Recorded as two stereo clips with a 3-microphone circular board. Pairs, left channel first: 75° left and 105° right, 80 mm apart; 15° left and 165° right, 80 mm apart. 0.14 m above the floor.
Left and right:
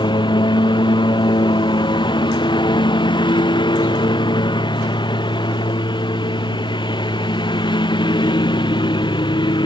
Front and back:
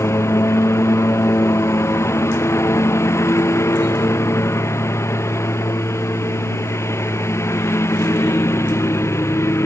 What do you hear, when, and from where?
0.0 s a lawn mower: 70° left